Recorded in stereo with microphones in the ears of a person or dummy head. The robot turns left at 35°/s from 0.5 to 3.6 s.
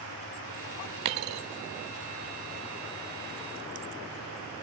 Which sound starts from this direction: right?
A dropped coin, at 1.1 s.